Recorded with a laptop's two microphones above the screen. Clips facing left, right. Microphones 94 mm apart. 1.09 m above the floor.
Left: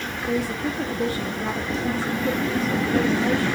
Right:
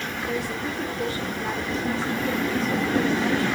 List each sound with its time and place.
0.3 s a woman speaking: 40° left (ahead or behind), 1.4 m